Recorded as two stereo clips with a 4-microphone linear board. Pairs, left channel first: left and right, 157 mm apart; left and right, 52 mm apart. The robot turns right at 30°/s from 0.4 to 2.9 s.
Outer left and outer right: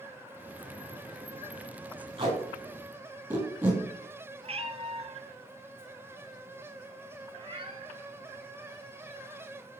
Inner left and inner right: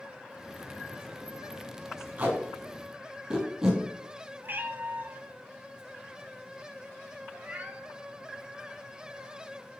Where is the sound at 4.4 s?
45° right (ahead or behind), 0.8 m.